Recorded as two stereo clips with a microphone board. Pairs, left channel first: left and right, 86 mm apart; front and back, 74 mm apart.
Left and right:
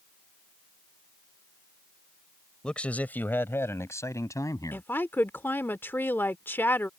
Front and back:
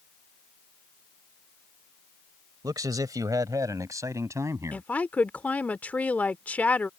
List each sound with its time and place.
2.6 s a man speaking: 170° left; by 4.8 s 135° left
4.7 s a woman speaking: 50° left